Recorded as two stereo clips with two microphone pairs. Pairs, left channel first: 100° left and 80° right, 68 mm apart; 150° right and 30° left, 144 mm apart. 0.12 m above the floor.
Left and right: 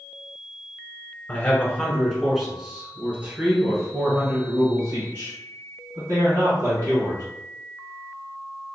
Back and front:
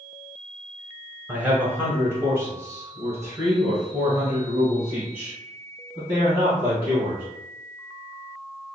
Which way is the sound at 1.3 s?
90° left.